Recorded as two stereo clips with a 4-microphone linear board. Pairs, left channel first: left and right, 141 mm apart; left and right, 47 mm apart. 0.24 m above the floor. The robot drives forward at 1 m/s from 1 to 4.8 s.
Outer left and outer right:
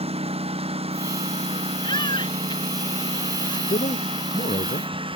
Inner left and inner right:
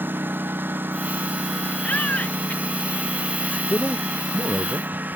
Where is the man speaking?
75° left (ahead or behind); by 4.9 s 70° left (ahead or behind).